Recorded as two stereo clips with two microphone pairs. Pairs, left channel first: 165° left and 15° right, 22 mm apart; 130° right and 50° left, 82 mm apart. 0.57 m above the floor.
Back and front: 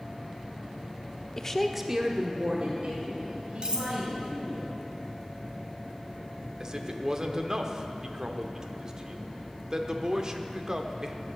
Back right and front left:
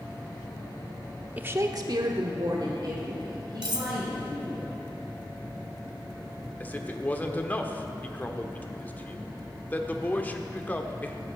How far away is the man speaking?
About 1.1 m.